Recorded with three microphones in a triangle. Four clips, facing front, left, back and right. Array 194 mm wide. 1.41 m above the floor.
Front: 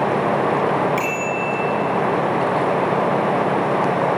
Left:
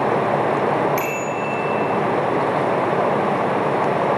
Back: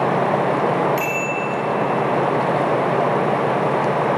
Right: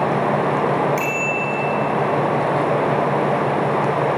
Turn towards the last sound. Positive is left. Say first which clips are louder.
# even, even
turn(degrees=70)